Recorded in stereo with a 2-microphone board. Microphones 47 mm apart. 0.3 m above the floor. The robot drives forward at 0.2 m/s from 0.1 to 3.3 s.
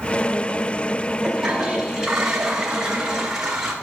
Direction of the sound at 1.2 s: 15° right (ahead or behind).